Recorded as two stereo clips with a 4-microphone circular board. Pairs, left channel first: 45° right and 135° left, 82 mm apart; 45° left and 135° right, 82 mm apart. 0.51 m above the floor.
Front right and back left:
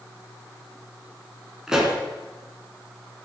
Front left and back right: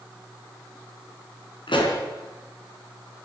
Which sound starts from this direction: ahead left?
A pop, at 1.7 s.